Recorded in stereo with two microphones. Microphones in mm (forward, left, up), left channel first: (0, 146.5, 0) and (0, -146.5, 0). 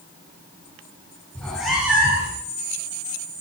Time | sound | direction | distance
1.4 | a cat meowing | 5° left (ahead or behind) | 3 m